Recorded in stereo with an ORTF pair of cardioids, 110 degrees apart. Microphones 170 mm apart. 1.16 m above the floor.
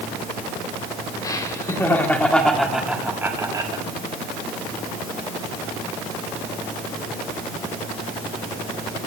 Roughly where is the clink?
No clink in this recording.